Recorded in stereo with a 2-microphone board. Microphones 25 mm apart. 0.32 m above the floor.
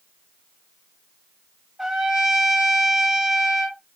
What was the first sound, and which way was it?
A trumpet, 20° right (ahead or behind).